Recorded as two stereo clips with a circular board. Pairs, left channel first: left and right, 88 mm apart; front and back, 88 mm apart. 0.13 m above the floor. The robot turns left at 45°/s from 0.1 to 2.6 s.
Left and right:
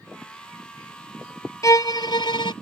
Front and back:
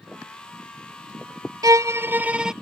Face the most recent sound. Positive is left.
turn(degrees=95)